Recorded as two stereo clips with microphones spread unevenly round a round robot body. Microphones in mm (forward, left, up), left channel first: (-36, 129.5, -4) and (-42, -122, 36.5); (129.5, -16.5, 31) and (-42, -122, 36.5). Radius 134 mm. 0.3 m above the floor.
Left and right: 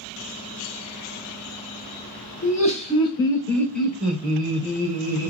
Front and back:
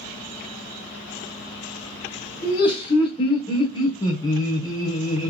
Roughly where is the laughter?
Left.